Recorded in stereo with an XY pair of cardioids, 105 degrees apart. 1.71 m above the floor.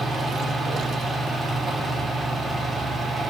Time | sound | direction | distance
0.0 | a fan | 40° right | 3.5 m